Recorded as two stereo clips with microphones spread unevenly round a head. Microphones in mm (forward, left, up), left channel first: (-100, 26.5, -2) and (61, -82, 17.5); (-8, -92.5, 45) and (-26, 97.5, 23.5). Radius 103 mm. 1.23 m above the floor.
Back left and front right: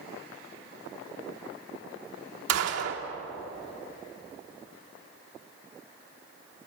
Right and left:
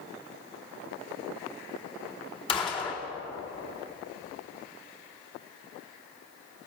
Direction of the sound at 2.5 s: 20° right.